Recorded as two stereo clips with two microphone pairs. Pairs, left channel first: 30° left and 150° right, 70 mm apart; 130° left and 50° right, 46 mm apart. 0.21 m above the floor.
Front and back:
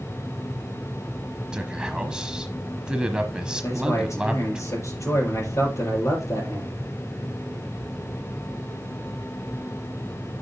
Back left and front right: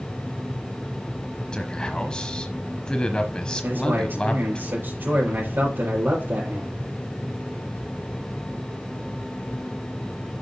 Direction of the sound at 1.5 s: 155° left.